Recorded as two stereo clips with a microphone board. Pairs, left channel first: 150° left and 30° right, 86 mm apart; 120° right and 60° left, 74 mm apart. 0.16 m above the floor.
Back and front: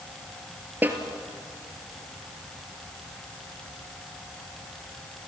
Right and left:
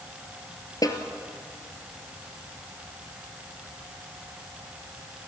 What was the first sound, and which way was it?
A snare drum, 95° right.